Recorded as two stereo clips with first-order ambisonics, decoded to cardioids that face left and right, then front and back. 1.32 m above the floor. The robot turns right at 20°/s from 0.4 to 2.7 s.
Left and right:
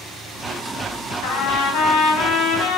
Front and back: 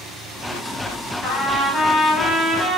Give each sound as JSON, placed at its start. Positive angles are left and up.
{"t": 1.2, "sound": "a trumpet", "azimuth_deg": 75, "distance_m": 0.6}